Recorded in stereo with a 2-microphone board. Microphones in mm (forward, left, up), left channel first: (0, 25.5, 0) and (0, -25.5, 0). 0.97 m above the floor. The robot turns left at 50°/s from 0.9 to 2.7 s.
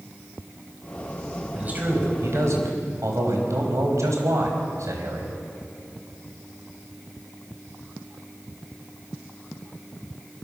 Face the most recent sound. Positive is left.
turn(degrees=-80)